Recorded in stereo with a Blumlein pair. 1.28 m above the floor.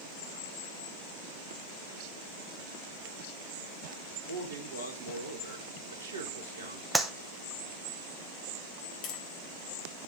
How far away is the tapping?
About 1.2 m.